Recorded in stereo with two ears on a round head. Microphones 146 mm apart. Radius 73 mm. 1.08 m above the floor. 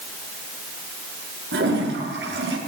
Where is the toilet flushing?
75° right (ahead or behind), 8.5 m.